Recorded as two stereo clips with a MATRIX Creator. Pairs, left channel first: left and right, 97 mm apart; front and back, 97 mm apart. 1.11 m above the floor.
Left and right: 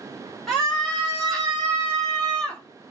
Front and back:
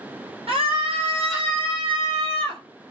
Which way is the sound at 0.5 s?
175° left.